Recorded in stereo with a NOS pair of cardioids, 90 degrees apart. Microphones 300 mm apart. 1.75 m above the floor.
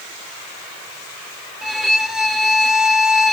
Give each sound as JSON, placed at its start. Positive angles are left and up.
{"t": 1.6, "sound": "a violin", "azimuth_deg": 0, "distance_m": 0.8}